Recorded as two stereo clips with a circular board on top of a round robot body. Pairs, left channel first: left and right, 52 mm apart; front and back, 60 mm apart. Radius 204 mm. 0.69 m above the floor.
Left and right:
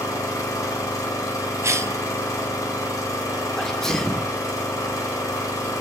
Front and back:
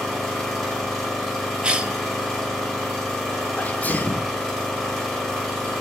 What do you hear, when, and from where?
0.0 s an engine running: 85° left, 0.8 m
1.6 s a cough: 105° right, 1.0 m
3.6 s a sneeze: 15° left, 0.6 m